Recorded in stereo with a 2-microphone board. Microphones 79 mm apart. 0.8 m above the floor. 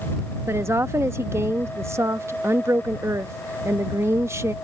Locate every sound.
0.5 s a woman speaking: 35° right (ahead or behind)